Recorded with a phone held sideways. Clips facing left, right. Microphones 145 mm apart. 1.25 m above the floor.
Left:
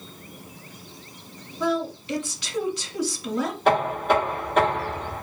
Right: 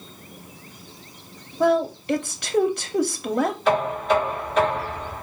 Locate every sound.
1.6 s a woman speaking: 55° right (ahead or behind), 0.7 m
3.6 s knocking: 55° left (ahead or behind), 2.5 m